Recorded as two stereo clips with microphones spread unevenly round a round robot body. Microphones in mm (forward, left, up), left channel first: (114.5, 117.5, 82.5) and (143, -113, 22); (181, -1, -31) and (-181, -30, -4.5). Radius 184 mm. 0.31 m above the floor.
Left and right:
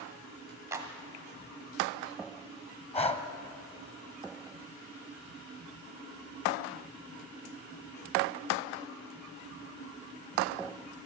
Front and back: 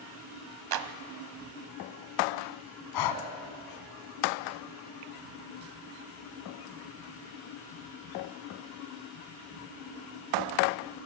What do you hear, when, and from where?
0.7 s a clap: 155° right, 1.3 m
2.9 s breathing: 25° left, 2 m